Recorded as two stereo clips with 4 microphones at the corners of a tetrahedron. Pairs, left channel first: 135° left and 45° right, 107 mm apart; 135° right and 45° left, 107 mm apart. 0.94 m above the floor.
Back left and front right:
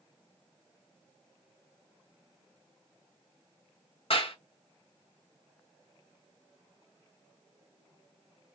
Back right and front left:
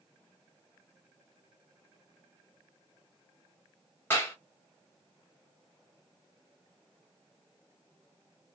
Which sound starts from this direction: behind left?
A clap, at 4.1 s.